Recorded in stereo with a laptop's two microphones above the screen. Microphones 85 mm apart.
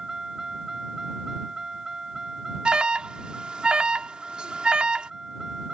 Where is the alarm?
10° right (ahead or behind).